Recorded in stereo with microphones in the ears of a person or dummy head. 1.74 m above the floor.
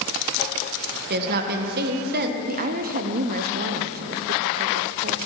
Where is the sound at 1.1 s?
50° right (ahead or behind), 1.6 m.